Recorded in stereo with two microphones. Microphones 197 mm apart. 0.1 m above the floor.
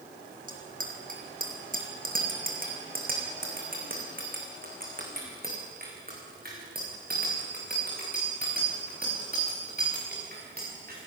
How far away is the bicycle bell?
About 3 m.